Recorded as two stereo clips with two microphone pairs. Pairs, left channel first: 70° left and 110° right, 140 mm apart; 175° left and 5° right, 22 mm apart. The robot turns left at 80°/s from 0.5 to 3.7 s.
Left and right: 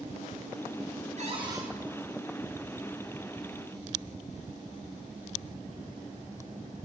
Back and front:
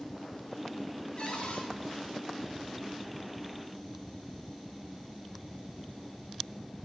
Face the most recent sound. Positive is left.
turn(degrees=15)